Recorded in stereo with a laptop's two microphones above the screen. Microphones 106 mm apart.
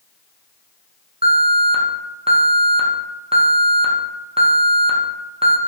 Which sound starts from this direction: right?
An alarm, at 1.2 s.